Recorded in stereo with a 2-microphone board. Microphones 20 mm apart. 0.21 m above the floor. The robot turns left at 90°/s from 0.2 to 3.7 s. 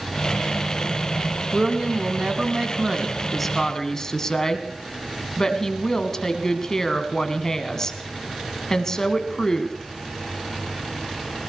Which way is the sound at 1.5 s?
20° right.